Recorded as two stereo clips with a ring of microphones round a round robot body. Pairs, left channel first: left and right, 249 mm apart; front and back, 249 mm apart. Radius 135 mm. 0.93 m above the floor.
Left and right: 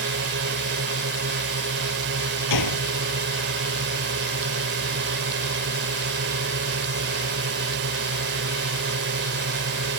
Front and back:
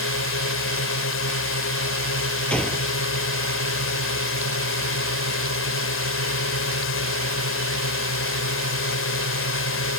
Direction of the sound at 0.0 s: 35° right.